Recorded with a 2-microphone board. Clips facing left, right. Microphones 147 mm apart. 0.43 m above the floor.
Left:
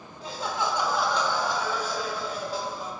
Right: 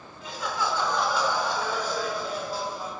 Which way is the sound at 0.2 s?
35° left (ahead or behind).